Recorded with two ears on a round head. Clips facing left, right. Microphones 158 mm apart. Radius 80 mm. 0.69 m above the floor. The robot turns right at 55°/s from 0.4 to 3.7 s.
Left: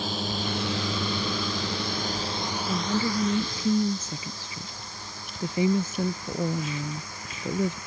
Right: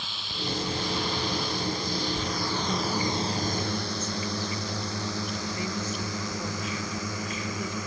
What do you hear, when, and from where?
0.0 s a drone: 35° left (ahead or behind); by 7.9 s 70° right (ahead or behind)
2.6 s a woman speaking: 5° left; by 7.8 s 65° left